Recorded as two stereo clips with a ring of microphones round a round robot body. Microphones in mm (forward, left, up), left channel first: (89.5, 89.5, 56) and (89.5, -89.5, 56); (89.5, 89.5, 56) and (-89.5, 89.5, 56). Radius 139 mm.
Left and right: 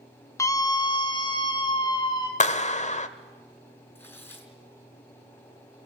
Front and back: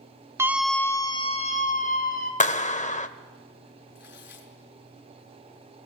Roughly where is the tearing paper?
Ahead.